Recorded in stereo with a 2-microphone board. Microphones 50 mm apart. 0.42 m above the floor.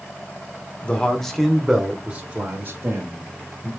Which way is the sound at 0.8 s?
25° left (ahead or behind).